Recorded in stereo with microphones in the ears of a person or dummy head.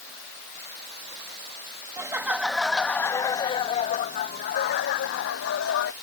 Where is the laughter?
15° right (ahead or behind); by 5.9 s 70° left (ahead or behind).